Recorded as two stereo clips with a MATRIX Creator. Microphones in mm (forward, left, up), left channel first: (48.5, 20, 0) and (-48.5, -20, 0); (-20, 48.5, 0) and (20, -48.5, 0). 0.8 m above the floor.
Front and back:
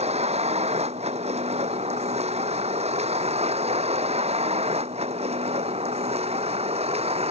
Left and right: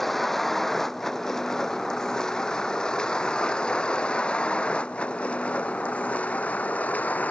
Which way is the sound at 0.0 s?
160° right.